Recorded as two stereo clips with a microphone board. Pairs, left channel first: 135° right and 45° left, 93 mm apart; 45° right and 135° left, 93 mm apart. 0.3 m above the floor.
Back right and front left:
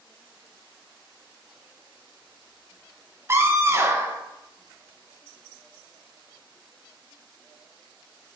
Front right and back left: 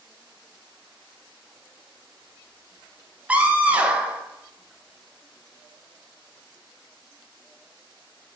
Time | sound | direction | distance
3.3 | a scream | 75° left | 1.1 m